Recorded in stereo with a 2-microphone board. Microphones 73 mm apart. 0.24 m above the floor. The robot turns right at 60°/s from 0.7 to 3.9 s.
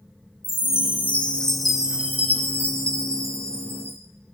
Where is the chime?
125° left, 1.6 m; by 4.0 s 45° right, 1.6 m.